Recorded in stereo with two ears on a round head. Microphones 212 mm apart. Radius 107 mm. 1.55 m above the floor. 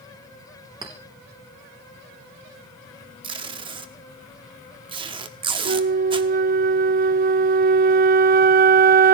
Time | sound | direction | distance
0.8 | a clink | 20° right (ahead or behind) | 3 m
3.2 | tape being pulled | 20° right (ahead or behind) | 1.2 m
5.7 | a flute | 40° right (ahead or behind) | 0.6 m